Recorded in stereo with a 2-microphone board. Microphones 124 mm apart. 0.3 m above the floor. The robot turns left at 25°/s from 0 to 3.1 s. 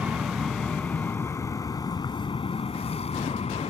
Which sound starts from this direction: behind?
An aircraft, at 0.0 s.